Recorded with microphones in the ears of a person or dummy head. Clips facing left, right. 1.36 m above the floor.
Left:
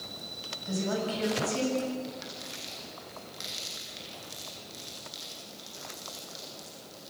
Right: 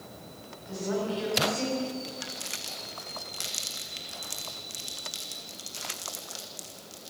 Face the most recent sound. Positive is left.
turn(degrees=-40)  # may be behind; listen again after turning